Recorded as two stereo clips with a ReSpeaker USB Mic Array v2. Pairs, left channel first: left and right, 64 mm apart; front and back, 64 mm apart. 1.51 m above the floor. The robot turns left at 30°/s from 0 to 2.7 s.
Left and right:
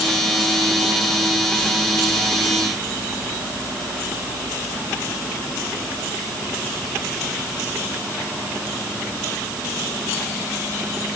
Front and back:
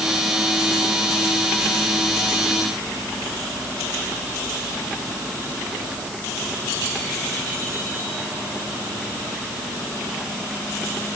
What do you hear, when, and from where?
Only background noise.